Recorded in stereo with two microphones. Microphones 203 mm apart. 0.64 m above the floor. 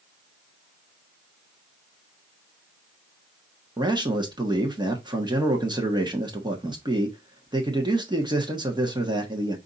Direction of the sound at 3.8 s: 20° right (ahead or behind).